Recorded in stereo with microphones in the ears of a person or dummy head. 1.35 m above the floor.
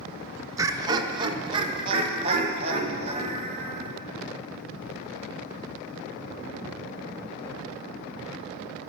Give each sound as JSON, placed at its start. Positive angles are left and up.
{"t": 0.6, "sound": "laughter", "side_deg": -15, "distance_m": 0.6}